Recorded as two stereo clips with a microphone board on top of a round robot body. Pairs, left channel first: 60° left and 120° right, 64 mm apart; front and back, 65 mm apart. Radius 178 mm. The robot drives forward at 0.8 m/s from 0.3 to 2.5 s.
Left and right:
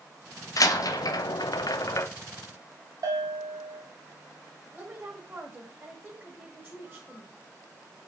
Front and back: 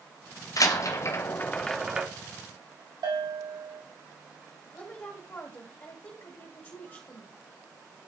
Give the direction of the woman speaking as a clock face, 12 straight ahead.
2 o'clock.